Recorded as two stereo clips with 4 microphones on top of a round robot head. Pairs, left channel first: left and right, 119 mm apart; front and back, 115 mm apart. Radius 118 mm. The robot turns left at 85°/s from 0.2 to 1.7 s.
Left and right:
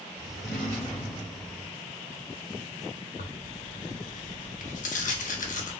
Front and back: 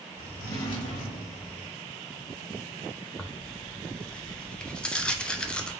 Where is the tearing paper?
80° left, 0.8 m.